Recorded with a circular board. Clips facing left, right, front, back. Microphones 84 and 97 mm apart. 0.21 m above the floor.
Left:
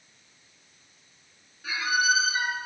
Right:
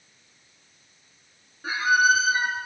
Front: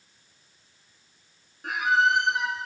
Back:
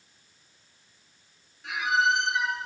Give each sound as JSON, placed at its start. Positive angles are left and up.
{"t": 1.6, "sound": "a squeak", "azimuth_deg": -40, "distance_m": 0.9}